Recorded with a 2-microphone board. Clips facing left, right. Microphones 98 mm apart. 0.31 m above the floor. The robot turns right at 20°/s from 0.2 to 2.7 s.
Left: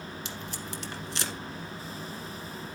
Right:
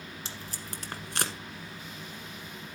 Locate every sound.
0.2 s tape being pulled: 35° right (ahead or behind), 1.3 m; by 1.3 s 55° right (ahead or behind), 1.3 m